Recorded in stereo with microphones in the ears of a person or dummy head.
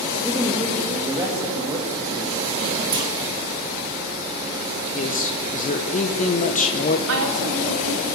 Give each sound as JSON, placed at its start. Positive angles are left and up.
{"t": 0.2, "sound": "a woman speaking", "side_deg": 0, "distance_m": 2.5}
{"t": 2.9, "sound": "a clunk", "side_deg": -25, "distance_m": 2.0}
{"t": 4.9, "sound": "a man speaking", "side_deg": 35, "distance_m": 1.3}
{"t": 7.1, "sound": "a woman speaking", "side_deg": -70, "distance_m": 3.5}